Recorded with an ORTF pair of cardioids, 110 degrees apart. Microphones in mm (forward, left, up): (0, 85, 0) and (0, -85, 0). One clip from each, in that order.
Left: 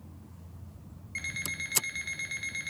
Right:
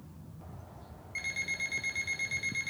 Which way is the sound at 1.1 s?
20° left.